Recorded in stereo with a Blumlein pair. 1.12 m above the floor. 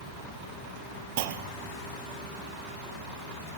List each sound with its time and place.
1.2 s a clunk: 50° right, 1.1 m